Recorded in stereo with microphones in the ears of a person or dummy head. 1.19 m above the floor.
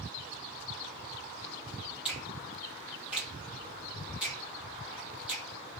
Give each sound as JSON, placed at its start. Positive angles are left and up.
{"t": 2.0, "sound": "a finger snap", "side_deg": 0, "distance_m": 1.4}